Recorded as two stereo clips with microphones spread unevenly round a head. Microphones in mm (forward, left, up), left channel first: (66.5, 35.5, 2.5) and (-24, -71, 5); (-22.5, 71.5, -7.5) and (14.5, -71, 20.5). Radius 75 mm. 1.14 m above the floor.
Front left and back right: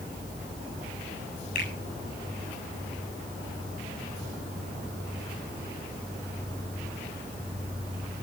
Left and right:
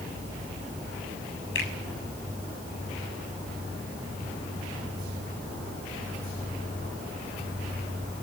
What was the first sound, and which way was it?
A finger snap, 90° left.